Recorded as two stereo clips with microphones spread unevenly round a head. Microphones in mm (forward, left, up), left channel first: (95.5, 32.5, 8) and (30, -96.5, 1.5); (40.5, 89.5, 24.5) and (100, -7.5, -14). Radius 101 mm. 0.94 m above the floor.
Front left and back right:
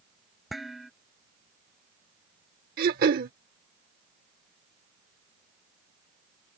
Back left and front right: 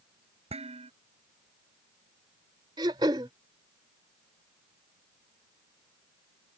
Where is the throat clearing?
135° right.